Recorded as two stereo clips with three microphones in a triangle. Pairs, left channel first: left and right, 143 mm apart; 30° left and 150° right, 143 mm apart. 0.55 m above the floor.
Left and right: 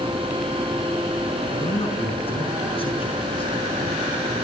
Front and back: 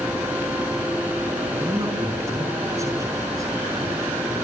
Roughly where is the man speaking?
Behind left.